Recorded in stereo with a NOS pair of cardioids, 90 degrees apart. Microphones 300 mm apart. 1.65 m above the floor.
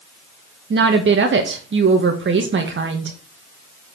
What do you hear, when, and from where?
0.7 s a woman speaking: 40° right, 1.6 m